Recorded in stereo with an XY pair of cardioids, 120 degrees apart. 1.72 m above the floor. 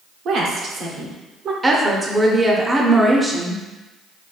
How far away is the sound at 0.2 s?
About 0.8 m.